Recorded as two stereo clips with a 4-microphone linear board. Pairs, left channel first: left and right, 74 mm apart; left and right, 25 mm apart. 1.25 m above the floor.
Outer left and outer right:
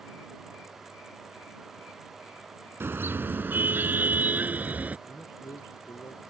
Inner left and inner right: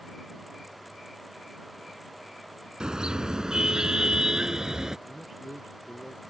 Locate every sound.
2.8 s a car horn: 35° right (ahead or behind); by 5.0 s 25° right (ahead or behind)
5.1 s a man speaking: 65° left (ahead or behind)